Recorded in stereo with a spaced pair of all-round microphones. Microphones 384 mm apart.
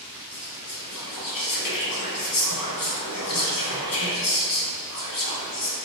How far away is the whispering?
About 0.7 m.